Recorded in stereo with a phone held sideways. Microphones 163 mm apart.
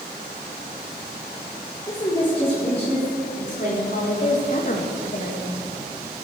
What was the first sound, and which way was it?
A woman speaking, 25° left (ahead or behind).